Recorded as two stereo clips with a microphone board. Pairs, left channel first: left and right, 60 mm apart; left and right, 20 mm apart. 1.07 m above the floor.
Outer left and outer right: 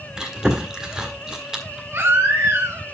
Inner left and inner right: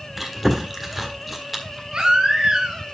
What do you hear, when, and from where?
0.2 s chewing: 10° right (ahead or behind), 1.6 m
1.9 s a baby crying: 45° right (ahead or behind), 2.5 m